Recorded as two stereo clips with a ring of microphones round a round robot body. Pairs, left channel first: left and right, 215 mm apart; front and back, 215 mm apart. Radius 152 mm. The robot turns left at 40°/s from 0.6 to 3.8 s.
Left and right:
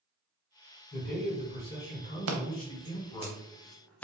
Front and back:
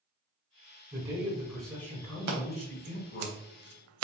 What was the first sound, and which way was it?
A man speaking, 110° left.